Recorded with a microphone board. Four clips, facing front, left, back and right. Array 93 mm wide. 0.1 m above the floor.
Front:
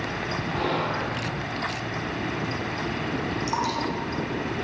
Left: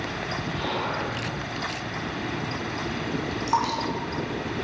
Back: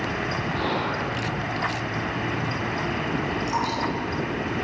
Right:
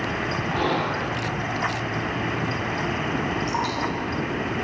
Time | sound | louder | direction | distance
0.5 | whispering | right 5 dB, front 2 dB | 75° right | 2.5 m
3.5 | dripping | left 2 dB, even | 75° left | 5 m